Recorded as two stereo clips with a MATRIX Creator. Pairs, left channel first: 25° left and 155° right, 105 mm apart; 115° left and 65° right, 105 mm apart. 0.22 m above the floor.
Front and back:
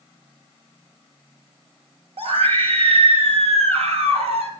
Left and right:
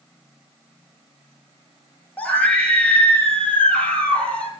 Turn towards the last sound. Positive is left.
turn(degrees=-165)